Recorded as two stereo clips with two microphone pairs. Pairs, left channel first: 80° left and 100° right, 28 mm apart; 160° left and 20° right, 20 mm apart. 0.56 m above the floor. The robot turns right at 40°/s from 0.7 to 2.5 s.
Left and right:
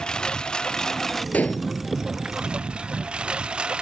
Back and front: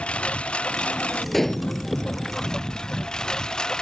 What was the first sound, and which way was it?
A lawn mower, 140° left.